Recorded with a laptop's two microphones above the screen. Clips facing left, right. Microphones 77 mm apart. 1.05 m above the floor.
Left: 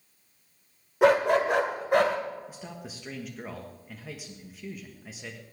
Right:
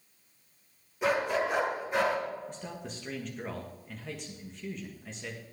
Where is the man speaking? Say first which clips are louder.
Right 1 dB; 5° left (ahead or behind), 1.4 m.